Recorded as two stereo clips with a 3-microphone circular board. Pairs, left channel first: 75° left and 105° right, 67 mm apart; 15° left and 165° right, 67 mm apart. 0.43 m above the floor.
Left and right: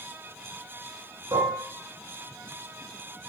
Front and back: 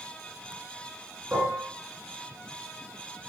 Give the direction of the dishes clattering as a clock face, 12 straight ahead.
3 o'clock.